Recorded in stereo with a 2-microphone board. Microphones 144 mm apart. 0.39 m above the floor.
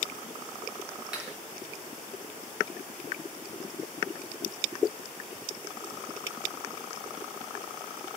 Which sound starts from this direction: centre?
A clap, at 1.1 s.